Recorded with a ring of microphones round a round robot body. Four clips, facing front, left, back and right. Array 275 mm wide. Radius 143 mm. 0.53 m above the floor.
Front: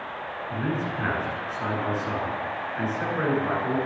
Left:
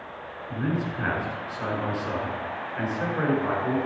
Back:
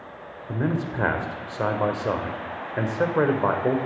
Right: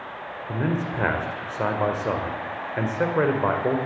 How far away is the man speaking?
About 2 m.